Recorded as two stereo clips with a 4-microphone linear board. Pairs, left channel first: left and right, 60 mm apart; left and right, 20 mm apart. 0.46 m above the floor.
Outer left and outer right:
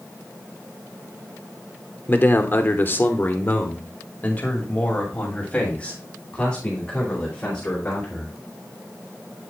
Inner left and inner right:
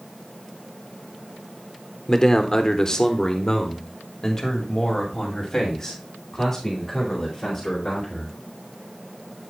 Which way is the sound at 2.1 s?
30° left (ahead or behind).